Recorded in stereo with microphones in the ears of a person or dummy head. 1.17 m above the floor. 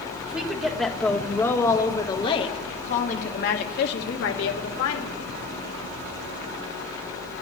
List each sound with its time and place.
0.2 s a woman speaking: 5° right (ahead or behind), 1.9 m; by 5.2 s 70° left (ahead or behind), 1.8 m